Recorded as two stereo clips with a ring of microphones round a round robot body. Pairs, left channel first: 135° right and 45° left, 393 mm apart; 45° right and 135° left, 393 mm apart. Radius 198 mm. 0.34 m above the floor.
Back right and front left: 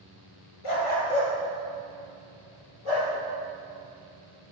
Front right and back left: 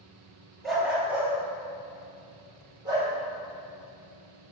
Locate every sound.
0.6 s a dog barking: 135° right, 2.5 m; by 3.1 s 145° right, 5 m